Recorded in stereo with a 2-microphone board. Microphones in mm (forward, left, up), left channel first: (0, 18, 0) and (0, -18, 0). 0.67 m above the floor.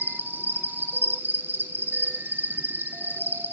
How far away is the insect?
About 1.3 m.